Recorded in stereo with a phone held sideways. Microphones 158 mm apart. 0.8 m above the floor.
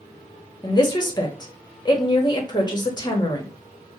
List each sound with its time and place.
0.6 s a woman speaking: 25° left (ahead or behind), 0.9 m